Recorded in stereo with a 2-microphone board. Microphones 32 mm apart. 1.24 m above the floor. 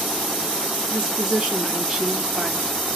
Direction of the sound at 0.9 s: 15° right (ahead or behind).